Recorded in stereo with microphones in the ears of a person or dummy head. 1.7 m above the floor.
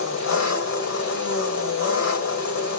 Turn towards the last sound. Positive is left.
turn(degrees=80)